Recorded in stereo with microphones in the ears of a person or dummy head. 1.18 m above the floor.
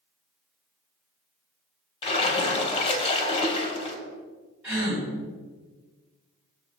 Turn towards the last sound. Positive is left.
turn(degrees=-10)  # may be behind; listen again after turning